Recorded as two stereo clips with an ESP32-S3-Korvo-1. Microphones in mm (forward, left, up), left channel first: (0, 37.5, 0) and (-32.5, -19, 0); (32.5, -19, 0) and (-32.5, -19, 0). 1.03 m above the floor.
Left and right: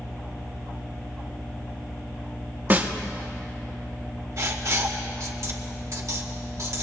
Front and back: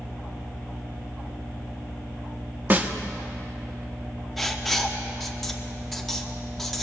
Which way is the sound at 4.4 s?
90° right.